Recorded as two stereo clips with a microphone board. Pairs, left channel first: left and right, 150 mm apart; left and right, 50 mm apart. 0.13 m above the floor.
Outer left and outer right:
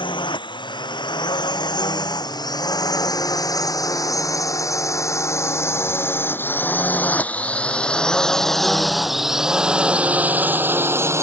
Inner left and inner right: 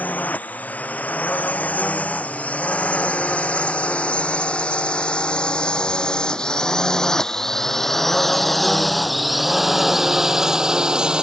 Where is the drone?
35° left (ahead or behind); by 11.2 s 20° right (ahead or behind).